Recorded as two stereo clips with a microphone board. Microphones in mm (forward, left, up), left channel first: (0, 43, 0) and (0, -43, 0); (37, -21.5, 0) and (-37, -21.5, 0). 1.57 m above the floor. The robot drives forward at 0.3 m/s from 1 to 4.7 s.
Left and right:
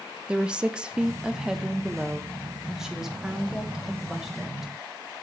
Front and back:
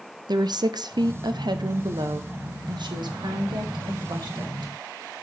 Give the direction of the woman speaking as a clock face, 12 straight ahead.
6 o'clock.